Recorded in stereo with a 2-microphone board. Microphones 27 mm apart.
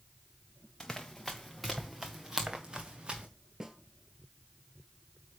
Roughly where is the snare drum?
Centre.